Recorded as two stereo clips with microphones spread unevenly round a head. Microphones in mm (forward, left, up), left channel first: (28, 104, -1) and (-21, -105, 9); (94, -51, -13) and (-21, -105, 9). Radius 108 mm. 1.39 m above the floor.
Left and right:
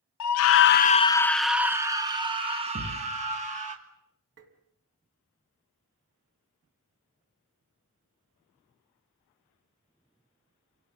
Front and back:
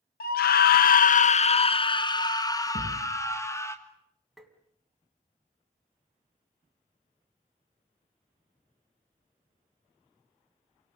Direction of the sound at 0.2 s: 65° left.